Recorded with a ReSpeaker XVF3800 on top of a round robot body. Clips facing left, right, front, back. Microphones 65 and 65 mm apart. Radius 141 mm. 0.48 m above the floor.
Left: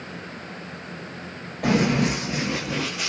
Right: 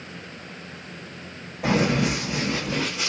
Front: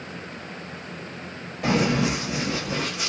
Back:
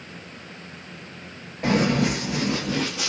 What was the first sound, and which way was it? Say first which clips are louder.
Running footsteps: left 1 dB, back 1 dB; 115° left.